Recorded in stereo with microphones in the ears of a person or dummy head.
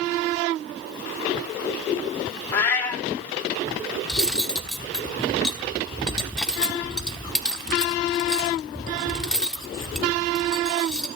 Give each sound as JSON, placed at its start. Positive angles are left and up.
{"t": 2.5, "sound": "a cat meowing", "side_deg": 15, "distance_m": 1.5}
{"t": 4.1, "sound": "cutlery clinking", "side_deg": 5, "distance_m": 1.1}